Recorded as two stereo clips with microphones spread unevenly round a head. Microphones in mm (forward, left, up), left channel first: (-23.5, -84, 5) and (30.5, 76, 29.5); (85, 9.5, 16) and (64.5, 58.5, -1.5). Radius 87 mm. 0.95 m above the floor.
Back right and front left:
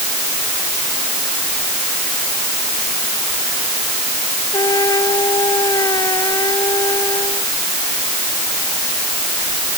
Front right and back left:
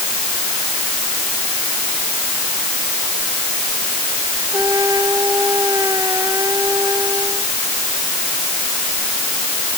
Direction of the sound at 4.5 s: Straight behind.